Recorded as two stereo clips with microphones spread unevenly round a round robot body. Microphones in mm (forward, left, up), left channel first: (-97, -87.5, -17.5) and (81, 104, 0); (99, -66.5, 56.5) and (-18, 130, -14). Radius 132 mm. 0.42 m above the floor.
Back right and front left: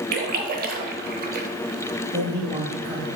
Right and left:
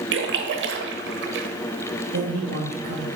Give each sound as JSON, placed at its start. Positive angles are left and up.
{"t": 0.1, "sound": "a splash", "azimuth_deg": 105, "distance_m": 0.8}
{"t": 2.1, "sound": "a man speaking", "azimuth_deg": 115, "distance_m": 2.5}